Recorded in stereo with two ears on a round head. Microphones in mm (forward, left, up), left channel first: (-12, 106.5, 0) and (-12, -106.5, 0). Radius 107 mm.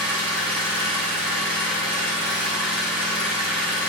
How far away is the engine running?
About 3 m.